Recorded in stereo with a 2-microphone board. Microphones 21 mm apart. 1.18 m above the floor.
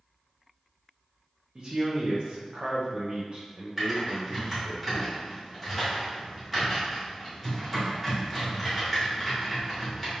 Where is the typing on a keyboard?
5° left (ahead or behind), 1.8 m.